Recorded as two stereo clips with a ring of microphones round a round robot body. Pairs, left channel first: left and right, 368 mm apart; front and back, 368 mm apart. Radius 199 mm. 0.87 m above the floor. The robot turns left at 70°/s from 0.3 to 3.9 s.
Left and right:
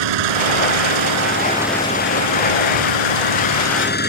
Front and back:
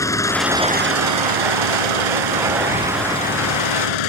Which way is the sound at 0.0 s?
80° right.